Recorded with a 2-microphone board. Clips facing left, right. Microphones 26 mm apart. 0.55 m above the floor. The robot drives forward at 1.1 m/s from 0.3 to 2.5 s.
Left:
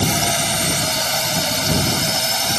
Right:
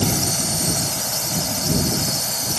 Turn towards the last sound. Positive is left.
turn(degrees=65)  # may be behind; listen again after turning